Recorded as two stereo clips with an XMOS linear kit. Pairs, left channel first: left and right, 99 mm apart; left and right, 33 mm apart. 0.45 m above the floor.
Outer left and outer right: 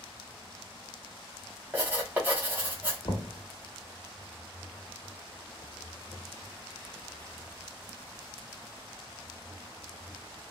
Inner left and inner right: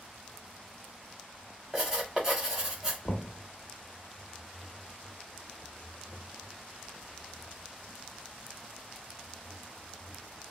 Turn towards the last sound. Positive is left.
turn(degrees=50)  # may be behind; listen again after turning